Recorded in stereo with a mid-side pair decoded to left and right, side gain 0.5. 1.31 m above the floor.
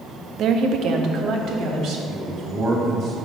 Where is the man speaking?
60° right, 2.0 m.